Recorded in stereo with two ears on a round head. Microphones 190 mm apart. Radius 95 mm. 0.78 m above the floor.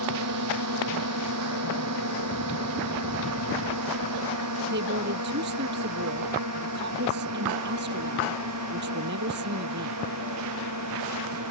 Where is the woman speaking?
50° right (ahead or behind).